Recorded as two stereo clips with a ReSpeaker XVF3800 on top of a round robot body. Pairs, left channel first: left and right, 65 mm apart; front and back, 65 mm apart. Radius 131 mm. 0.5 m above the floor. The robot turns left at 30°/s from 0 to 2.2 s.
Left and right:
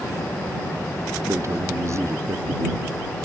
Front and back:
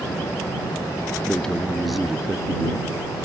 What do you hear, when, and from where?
1.3 s a man speaking: 70° right; by 3.2 s 100° right